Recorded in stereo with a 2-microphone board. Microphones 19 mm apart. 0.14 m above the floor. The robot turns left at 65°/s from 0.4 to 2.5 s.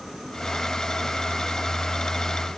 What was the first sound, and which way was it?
Only background noise.